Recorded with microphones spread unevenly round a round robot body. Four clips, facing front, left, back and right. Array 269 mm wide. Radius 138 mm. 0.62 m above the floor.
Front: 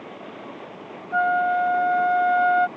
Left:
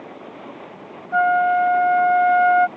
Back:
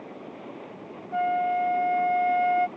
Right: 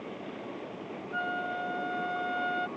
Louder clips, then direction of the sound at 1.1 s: Left 18 dB, front 4 dB; 75° left.